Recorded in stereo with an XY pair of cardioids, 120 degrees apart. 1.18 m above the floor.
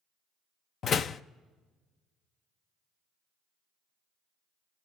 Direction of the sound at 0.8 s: 45° left.